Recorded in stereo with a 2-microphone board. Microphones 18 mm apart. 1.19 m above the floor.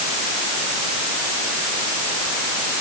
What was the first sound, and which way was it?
Only background noise.